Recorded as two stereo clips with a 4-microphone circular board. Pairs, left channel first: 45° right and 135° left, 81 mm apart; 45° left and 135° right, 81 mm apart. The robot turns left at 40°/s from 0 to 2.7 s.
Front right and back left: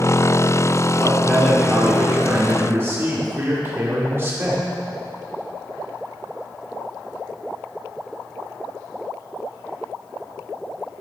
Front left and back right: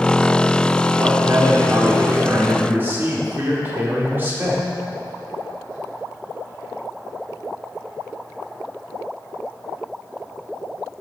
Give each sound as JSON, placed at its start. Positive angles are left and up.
{"t": 1.0, "sound": "a man speaking", "azimuth_deg": -115, "distance_m": 1.5}